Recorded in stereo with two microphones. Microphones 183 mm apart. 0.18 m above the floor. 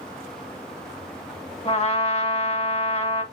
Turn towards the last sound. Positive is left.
turn(degrees=35)  # may be behind; listen again after turning